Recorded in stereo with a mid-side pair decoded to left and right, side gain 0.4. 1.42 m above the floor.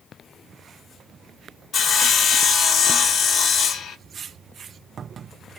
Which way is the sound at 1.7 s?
65° left.